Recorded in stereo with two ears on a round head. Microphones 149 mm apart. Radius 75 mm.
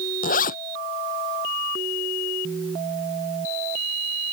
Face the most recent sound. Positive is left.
turn(degrees=60)  # may be behind; listen again after turning